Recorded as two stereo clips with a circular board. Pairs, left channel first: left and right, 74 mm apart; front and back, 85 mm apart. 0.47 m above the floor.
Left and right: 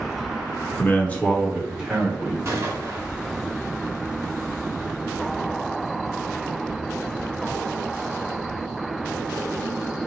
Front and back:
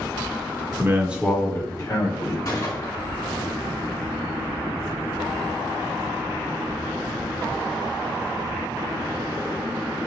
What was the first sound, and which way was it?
A man speaking, 140° left.